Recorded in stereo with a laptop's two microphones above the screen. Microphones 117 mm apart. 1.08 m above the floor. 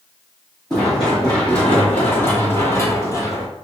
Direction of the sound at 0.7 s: 5° left (ahead or behind).